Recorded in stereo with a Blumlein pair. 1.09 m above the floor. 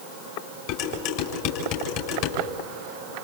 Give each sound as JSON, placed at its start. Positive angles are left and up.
{"t": 0.7, "sound": "dishes clattering", "azimuth_deg": 45, "distance_m": 6.0}